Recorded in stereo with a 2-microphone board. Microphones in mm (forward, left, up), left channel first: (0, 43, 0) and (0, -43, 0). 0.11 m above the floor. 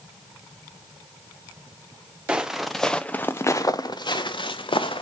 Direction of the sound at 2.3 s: 10° right (ahead or behind).